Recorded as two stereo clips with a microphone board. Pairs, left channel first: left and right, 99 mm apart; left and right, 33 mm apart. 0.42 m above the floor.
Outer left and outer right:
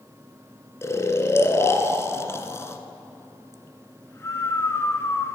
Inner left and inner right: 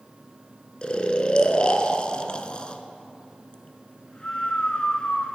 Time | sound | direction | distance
0.8 | snoring | 30° left (ahead or behind) | 0.7 m